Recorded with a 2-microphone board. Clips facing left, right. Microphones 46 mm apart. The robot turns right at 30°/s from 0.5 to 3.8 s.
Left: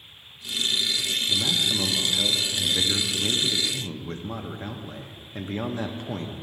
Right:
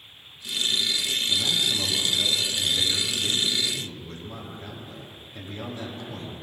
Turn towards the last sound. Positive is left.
turn(degrees=105)